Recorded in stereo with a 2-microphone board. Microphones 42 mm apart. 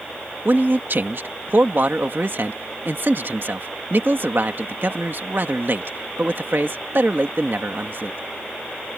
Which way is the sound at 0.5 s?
60° right (ahead or behind).